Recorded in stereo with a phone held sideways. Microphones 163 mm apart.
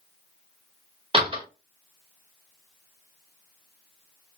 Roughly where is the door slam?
Right.